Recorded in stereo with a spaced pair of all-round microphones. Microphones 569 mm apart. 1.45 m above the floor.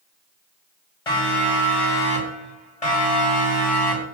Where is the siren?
70° left (ahead or behind), 8 m; by 4.0 s 80° left, 9 m.